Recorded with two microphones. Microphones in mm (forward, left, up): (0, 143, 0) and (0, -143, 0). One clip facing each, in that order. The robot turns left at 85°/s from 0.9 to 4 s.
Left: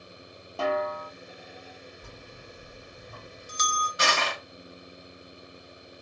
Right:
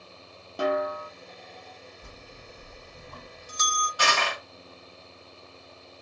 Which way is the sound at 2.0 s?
Centre (ahead or behind).